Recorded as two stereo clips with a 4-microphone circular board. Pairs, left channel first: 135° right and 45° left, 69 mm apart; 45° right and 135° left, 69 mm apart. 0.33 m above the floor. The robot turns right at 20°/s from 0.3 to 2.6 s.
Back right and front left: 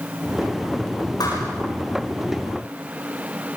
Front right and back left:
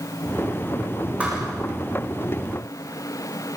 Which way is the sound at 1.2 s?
155° right.